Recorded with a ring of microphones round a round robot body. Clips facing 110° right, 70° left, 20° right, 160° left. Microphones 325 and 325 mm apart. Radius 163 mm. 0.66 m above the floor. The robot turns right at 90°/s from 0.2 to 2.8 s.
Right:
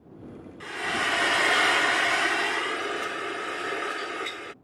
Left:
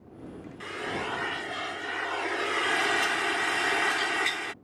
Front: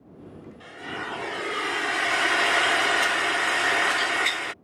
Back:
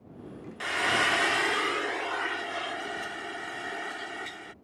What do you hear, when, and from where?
0.6 s frying: 155° left; by 4.5 s 5° right